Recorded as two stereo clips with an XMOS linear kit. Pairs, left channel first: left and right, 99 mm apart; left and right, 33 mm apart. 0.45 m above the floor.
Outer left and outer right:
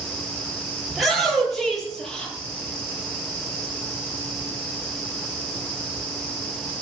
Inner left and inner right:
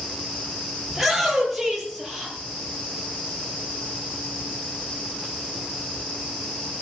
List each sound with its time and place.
0.9 s a shout: centre (ahead or behind), 9.5 m; by 2.4 s 5° left (ahead or behind), 8.5 m